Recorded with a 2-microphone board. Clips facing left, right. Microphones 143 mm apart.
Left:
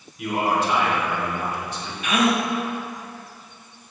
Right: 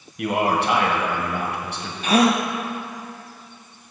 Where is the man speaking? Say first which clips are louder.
Right 2 dB; 70° right (ahead or behind), 1.3 m.